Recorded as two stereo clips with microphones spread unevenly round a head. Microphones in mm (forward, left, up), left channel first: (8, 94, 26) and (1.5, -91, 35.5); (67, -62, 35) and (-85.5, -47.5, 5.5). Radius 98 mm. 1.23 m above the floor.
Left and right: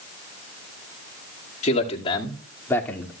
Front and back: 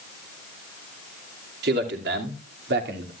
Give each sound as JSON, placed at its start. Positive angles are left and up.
{"t": 1.6, "sound": "a man speaking", "azimuth_deg": 145, "distance_m": 2.5}